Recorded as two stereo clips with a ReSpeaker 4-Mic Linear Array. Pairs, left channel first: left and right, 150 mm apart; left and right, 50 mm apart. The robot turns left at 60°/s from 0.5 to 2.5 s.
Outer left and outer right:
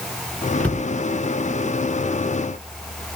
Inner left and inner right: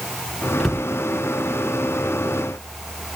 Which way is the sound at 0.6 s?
5° left (ahead or behind).